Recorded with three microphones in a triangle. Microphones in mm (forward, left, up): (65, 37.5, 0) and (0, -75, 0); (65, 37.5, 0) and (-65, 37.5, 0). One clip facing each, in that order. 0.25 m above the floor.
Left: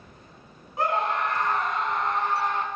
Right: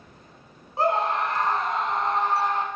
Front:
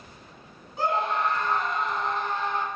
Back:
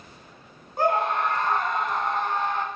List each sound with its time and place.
0.8 s a scream: 170° right, 2 m